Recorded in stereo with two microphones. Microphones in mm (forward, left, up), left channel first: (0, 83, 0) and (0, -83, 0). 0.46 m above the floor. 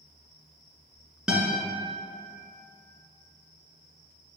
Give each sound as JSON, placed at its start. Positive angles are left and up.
{"t": 1.3, "sound": "a guitar", "side_deg": -5, "distance_m": 1.8}